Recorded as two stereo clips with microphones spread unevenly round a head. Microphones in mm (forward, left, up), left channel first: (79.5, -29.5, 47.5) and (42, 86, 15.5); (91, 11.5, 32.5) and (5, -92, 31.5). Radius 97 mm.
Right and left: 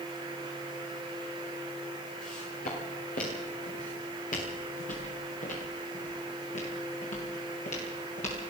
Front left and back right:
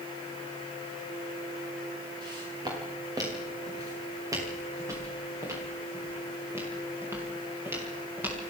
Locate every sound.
2.2 s footsteps: 70° right, 8 m; by 8.4 s 55° right, 11 m